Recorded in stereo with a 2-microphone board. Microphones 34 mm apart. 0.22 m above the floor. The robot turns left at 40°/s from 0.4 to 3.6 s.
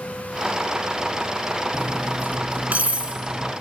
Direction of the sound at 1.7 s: 65° right (ahead or behind).